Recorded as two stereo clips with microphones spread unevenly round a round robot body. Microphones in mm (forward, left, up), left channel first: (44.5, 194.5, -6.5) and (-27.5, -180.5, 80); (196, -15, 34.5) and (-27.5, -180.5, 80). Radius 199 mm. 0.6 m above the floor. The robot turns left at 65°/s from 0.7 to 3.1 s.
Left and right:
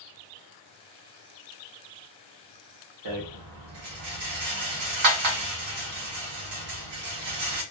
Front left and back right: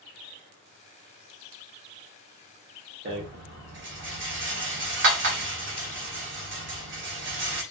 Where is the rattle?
110° right, 1.0 m; by 7.6 s 115° right, 1.0 m.